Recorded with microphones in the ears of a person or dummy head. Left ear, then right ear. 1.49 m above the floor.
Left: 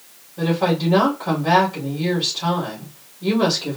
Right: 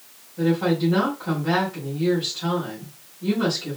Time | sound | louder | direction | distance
0.4 | a woman speaking | left 1 dB | 25° left (ahead or behind) | 3.5 m